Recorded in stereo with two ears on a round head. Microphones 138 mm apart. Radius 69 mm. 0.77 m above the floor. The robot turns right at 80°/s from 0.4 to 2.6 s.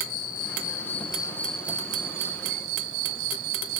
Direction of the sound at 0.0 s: 85° left.